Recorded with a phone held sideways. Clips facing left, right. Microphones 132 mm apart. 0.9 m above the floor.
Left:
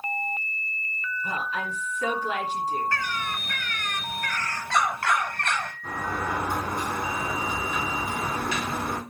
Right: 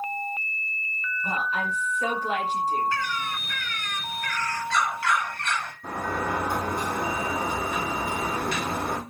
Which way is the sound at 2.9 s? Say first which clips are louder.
Right 1 dB; 55° left (ahead or behind).